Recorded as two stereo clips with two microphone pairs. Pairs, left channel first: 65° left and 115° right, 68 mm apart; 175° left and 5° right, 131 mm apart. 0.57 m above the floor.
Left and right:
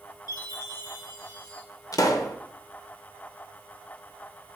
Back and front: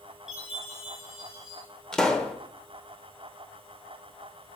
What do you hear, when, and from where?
0.3 s a chime: 80° left, 4.5 m
1.9 s a pop: 95° left, 0.9 m